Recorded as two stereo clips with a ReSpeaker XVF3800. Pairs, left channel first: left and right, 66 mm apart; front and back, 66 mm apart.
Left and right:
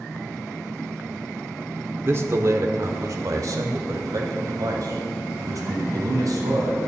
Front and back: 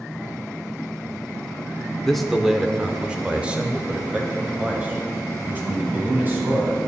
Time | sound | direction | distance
2.1 | a man speaking | 85° right | 0.9 m